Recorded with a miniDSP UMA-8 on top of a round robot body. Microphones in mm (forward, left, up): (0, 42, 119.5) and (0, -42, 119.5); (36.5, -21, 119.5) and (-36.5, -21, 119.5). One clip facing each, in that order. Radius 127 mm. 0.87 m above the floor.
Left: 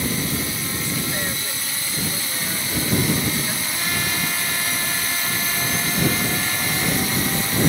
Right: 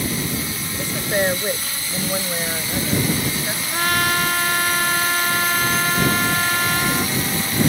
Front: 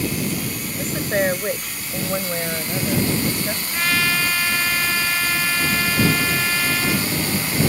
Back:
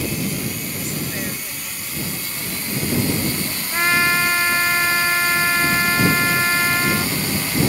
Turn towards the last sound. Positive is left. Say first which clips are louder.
# right 10 dB, back 4 dB
turn(degrees=-120)